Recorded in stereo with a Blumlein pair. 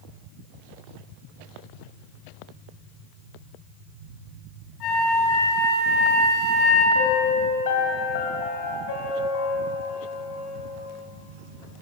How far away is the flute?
About 3 m.